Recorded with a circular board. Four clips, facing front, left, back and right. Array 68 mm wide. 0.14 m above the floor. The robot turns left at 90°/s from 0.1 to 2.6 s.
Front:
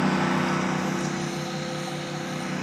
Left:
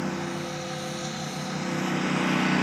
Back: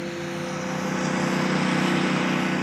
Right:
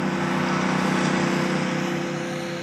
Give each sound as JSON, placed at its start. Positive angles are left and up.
{"t": 0.0, "sound": "a lawn mower", "azimuth_deg": -20}